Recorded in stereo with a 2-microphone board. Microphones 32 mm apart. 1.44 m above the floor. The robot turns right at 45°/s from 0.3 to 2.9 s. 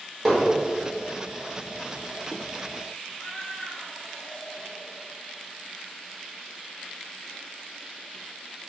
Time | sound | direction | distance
0.2 | hammering | 5° right (ahead or behind) | 4.5 m
3.1 | a cat meowing | 70° left (ahead or behind) | 3 m